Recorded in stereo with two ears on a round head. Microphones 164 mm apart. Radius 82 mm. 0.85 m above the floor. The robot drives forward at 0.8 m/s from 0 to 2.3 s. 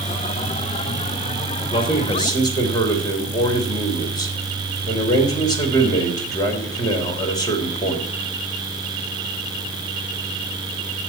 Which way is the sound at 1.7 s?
30° left (ahead or behind).